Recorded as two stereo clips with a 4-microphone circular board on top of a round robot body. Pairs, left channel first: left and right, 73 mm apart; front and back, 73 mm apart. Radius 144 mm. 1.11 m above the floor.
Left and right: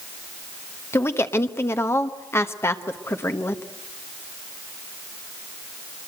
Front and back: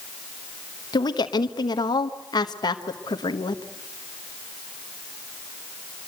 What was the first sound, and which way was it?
A woman speaking, 35° left.